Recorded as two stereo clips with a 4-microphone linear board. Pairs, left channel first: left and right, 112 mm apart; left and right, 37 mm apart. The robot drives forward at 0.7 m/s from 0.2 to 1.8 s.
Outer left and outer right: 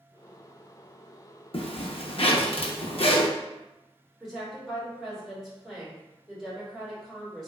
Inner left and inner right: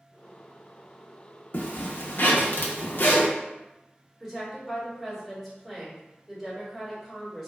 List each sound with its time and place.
1.5 s a zipper: 55° left (ahead or behind), 0.6 m; by 3.3 s 60° left (ahead or behind), 0.5 m
4.2 s a woman speaking: 5° right (ahead or behind), 1.6 m